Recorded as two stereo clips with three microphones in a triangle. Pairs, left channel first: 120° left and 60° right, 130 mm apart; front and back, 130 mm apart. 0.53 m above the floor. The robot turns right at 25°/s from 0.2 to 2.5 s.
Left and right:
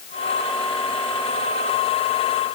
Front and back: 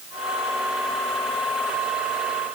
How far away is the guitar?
No guitar in this recording.